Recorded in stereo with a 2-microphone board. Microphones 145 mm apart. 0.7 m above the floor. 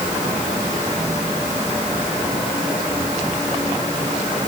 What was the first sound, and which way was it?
Only background noise.